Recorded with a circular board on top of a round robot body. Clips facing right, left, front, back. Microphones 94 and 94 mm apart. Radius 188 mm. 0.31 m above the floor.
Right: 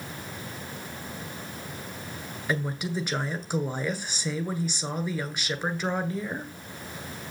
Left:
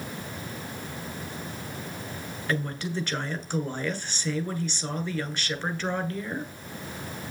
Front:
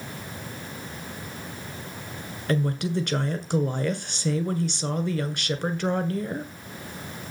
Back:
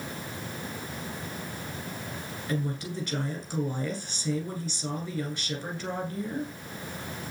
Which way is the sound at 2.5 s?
15° right.